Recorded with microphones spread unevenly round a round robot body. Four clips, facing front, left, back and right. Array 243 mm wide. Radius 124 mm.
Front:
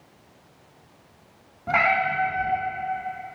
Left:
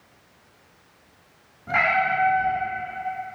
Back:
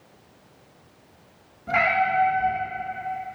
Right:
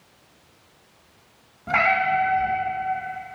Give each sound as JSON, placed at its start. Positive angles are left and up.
{"t": 1.7, "sound": "a cat meowing", "azimuth_deg": -20, "distance_m": 1.0}